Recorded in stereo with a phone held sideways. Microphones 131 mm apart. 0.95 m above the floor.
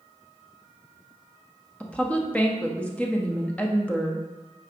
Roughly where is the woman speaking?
Centre.